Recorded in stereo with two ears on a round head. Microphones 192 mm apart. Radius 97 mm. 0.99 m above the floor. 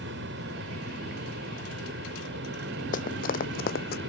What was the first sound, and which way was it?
An aircraft, 55° right (ahead or behind).